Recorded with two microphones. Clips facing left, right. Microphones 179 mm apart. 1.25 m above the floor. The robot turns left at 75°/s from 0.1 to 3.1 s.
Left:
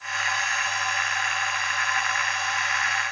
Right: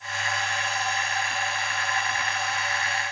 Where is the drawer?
No drawer in this recording.